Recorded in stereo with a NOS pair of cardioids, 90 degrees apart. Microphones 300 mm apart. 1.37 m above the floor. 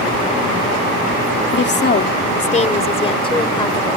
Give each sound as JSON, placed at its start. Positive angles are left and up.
{"t": 1.5, "sound": "a woman speaking", "azimuth_deg": 40}